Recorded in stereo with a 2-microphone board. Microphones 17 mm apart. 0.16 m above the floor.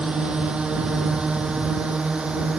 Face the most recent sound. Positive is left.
turn(degrees=-80)